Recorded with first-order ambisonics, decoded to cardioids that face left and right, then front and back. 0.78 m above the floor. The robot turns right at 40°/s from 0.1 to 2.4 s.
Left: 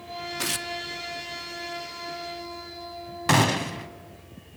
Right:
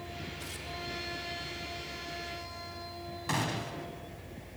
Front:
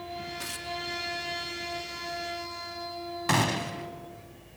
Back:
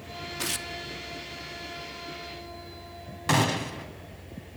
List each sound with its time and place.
0.4 s tearing paper: 115° left, 0.6 m; by 0.7 s 130° left, 0.6 m
3.3 s a gunshot: 90° left, 0.7 m